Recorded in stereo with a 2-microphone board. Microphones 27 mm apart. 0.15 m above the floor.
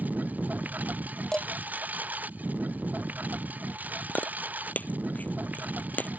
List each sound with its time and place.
0.0 s a lawn mower: 80° right; by 6.2 s 90° right
1.3 s dishes clattering: 25° left (ahead or behind)
4.1 s chewing: 80° left